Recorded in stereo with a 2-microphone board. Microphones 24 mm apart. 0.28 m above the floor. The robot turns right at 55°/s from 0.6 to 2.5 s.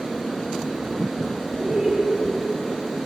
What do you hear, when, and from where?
1.6 s laughter: 50° right (ahead or behind), 2.5 m; by 2.0 s 55° right (ahead or behind), 2.5 m